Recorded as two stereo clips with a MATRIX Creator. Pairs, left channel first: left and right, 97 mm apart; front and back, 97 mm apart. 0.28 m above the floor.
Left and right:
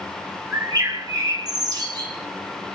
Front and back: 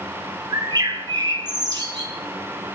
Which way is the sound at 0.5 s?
135° right.